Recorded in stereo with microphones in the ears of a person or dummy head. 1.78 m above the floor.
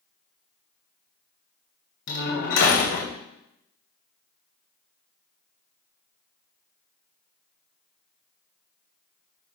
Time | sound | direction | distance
2.1 | a door slam | 60° left (ahead or behind) | 1.8 m